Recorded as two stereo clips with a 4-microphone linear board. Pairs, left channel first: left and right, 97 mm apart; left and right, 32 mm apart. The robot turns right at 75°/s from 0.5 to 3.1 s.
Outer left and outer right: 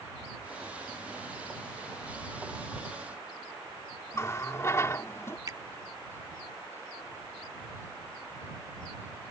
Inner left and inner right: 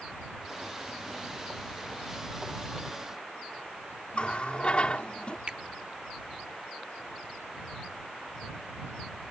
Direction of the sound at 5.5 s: 40° right (ahead or behind).